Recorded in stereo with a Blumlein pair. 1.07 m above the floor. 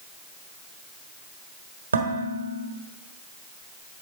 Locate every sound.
1.9 s dishes clattering: 70° right, 1.4 m